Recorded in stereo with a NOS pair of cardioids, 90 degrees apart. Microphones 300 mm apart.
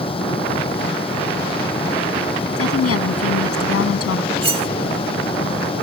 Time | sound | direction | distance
0.0 | a fan | 15° left | ?
2.6 | a woman speaking | 50° left | ?
4.4 | cutlery clinking | 20° right | ?